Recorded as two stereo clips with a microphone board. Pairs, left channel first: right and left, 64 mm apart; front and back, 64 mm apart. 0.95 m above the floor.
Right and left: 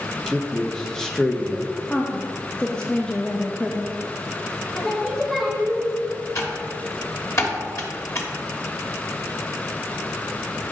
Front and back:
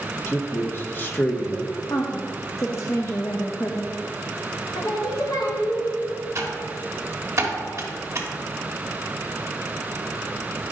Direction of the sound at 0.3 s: 15° right.